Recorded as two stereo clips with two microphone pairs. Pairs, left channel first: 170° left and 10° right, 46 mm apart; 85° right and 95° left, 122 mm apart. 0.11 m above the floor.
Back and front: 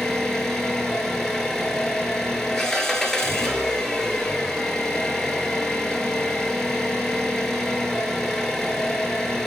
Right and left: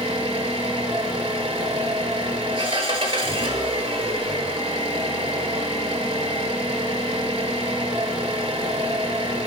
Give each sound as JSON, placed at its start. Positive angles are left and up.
{"t": 0.0, "sound": "an engine running", "azimuth_deg": 95, "distance_m": 1.0}